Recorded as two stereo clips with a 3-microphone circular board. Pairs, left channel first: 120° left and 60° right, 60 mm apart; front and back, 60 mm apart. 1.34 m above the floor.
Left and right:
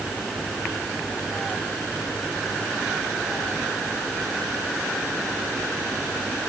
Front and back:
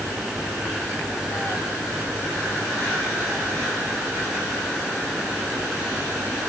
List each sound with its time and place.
Only background noise.